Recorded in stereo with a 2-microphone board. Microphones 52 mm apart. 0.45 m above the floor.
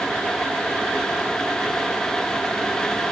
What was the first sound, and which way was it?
Only background noise.